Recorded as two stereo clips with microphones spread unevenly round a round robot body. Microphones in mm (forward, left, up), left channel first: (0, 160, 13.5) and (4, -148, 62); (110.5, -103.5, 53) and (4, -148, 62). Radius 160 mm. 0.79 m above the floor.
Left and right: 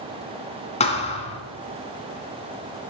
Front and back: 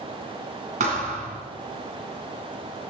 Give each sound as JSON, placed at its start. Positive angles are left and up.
{"t": 0.8, "sound": "a thud", "azimuth_deg": 165, "distance_m": 2.5}